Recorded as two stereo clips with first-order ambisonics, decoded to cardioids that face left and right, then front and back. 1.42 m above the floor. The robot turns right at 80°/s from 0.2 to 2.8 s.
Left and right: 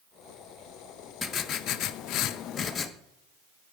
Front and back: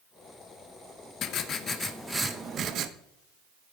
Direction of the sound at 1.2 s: 20° left.